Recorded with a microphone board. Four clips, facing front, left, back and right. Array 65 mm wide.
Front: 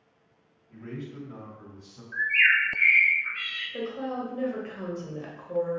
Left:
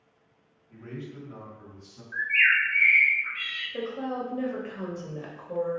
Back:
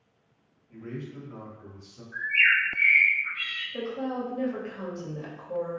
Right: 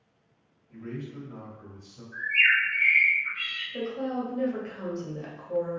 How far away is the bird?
About 1.0 m.